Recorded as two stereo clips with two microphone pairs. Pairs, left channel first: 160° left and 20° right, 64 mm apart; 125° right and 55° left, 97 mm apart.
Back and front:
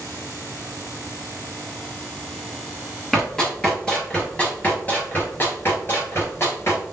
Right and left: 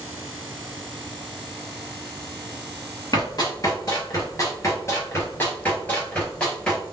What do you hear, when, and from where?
3.1 s running footsteps: 115° right, 1.9 m; by 6.8 s 155° left, 1.9 m